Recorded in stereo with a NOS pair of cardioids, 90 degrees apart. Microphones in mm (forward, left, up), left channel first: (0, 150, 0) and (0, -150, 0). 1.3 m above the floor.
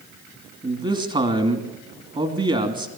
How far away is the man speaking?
About 3 m.